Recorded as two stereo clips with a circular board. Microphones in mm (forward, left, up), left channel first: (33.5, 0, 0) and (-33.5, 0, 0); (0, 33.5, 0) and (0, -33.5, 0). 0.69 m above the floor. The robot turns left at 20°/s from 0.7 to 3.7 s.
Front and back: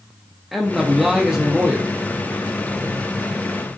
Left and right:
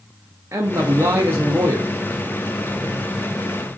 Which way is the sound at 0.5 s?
90° right.